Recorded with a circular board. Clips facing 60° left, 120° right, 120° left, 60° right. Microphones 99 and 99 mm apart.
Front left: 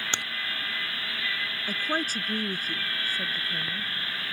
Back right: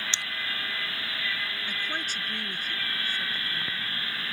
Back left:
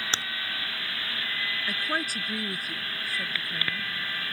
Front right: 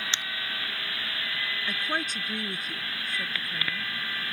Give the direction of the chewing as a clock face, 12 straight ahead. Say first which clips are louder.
Front left 4 dB, back left 5 dB; 10 o'clock.